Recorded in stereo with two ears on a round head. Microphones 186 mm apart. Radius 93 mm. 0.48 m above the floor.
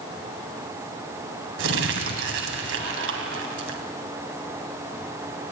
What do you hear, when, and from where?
1.6 s crumpling: 65° right (ahead or behind), 3 m